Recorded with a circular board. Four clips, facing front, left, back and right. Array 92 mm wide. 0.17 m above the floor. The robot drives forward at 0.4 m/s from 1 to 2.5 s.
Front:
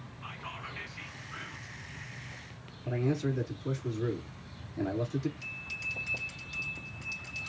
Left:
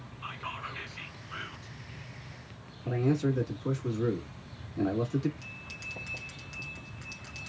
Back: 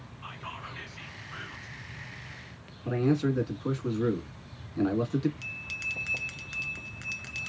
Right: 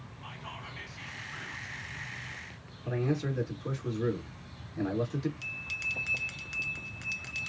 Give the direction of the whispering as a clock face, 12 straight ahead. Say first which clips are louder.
Left 6 dB, back 2 dB; 9 o'clock.